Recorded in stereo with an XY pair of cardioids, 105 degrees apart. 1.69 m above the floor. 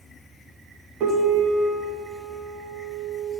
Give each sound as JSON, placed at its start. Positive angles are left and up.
{"t": 1.0, "sound": "a piano", "azimuth_deg": -65, "distance_m": 1.5}